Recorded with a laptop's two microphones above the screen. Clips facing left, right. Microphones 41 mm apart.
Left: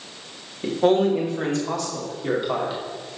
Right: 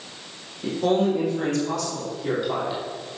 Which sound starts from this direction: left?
A man speaking, at 0.6 s.